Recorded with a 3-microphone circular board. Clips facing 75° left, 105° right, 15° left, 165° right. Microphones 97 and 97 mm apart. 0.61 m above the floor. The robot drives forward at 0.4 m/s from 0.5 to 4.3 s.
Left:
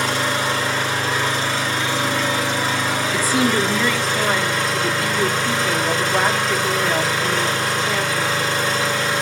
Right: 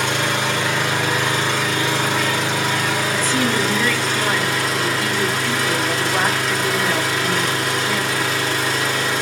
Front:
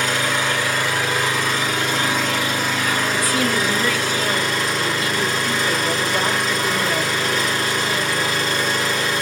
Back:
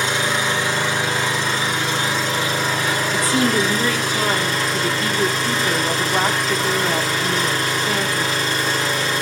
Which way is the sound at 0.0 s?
105° right.